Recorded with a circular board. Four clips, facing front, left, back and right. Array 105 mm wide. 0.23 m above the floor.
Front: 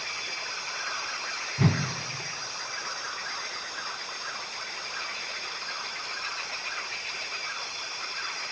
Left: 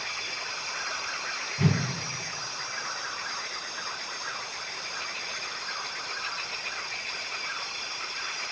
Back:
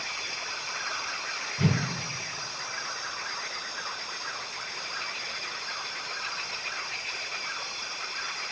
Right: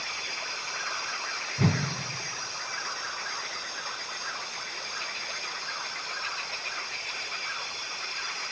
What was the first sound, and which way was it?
A whoosh, 30° right.